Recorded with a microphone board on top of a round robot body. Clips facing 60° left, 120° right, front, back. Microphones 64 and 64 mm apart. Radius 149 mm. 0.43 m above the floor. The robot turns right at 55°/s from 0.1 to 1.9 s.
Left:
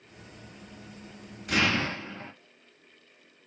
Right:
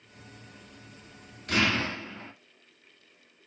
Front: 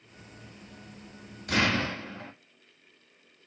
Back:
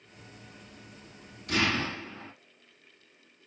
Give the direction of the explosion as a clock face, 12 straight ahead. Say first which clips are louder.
Even, front 2 dB; 1 o'clock.